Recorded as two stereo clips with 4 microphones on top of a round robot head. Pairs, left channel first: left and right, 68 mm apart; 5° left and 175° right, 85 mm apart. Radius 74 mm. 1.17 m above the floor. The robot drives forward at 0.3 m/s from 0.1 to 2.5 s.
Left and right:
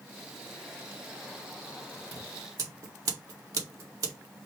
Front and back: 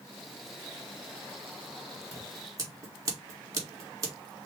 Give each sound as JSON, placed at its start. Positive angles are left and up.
{"t": 2.1, "sound": "scissors", "azimuth_deg": -120, "distance_m": 1.6}